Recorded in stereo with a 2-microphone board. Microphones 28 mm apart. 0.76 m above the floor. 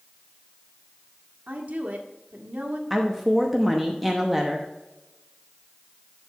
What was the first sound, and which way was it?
A woman speaking, 70° right (ahead or behind).